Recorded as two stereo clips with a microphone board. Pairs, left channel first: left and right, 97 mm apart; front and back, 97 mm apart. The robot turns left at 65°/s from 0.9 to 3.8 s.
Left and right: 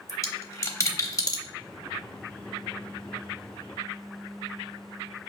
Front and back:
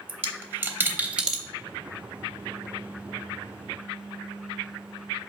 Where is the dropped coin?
125° left, 0.7 m; by 1.4 s 90° left, 0.7 m.